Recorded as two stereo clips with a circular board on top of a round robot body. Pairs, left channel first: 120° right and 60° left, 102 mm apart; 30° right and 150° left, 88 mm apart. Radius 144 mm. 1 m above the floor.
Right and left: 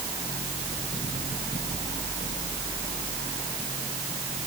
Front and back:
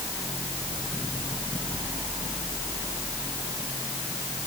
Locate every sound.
Only background noise.